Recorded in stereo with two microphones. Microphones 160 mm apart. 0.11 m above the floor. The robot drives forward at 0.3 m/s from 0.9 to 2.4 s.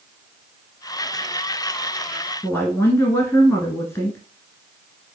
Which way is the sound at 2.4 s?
15° left (ahead or behind).